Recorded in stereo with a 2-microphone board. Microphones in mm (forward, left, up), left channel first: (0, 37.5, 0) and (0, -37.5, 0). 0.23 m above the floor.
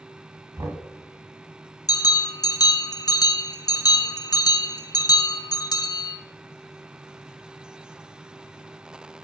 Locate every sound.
0.6 s knocking: 40° right (ahead or behind), 1.6 m
1.9 s a bell: 60° left (ahead or behind), 0.7 m